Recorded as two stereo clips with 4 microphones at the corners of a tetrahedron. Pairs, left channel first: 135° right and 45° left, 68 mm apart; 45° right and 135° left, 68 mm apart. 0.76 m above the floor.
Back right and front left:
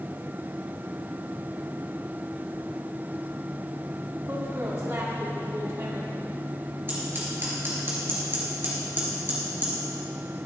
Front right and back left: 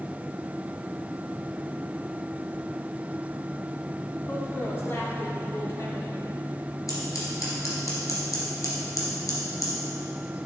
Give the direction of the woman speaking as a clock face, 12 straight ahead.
12 o'clock.